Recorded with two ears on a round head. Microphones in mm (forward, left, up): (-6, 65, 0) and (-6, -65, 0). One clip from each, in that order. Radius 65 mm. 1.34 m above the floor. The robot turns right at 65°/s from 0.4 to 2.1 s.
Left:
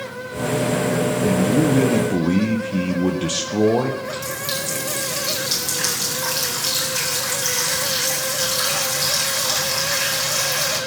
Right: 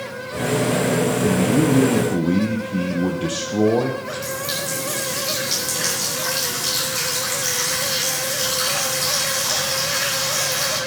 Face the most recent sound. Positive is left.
turn(degrees=10)  # may be behind; listen again after turning